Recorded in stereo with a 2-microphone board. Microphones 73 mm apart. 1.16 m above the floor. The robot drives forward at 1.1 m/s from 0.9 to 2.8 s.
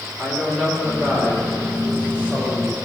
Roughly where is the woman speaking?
Right.